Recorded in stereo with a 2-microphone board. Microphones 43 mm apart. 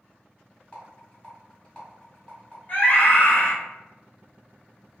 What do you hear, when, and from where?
0.7 s a rattle: 25° left (ahead or behind), 1.6 m
2.7 s a scream: 45° left (ahead or behind), 1.3 m